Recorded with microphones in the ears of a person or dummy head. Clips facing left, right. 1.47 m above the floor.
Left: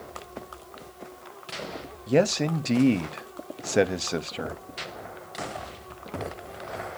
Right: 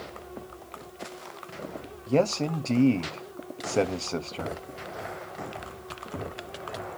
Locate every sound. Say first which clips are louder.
2.1 s a man speaking: left 2 dB; 15° left (ahead or behind), 0.5 m